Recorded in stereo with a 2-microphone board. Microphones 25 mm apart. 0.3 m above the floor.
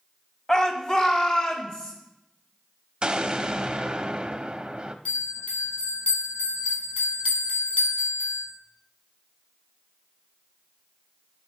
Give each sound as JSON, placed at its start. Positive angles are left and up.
{"t": 0.5, "sound": "a shout", "side_deg": 25, "distance_m": 1.3}
{"t": 3.0, "sound": "an explosion", "side_deg": -40, "distance_m": 0.6}
{"t": 5.0, "sound": "a bell", "side_deg": 55, "distance_m": 5.0}